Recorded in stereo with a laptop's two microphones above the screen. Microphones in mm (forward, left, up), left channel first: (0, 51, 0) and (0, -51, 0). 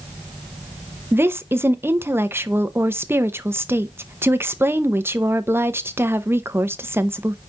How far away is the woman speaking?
About 0.7 m.